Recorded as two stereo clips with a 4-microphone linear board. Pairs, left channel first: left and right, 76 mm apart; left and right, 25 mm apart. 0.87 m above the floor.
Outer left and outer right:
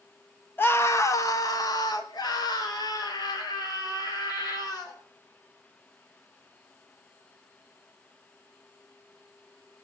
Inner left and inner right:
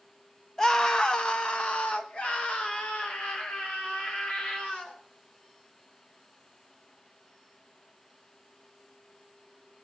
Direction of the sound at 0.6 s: 30° left (ahead or behind).